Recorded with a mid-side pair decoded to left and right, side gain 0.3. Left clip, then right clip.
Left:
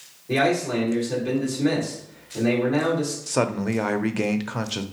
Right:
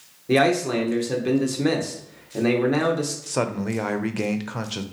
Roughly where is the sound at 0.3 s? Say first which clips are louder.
Right 2 dB; right.